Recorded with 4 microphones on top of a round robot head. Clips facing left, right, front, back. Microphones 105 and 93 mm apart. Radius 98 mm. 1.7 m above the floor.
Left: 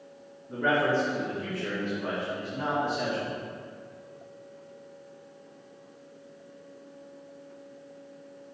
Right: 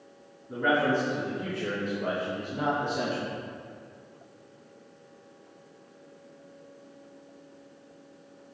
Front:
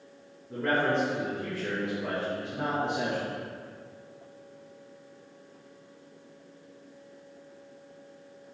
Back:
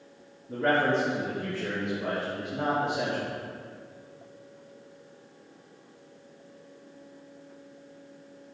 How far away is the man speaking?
About 2.5 m.